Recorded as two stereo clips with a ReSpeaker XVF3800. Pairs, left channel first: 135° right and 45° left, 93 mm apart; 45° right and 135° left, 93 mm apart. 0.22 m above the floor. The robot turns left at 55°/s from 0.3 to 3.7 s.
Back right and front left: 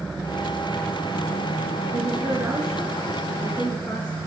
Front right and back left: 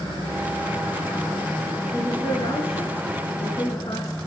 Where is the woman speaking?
20° left, 3.5 m; by 4.2 s 75° right, 3.5 m.